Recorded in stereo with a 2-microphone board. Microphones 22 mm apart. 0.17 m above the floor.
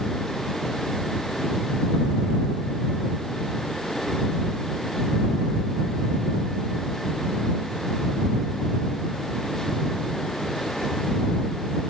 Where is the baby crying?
No baby crying in this recording.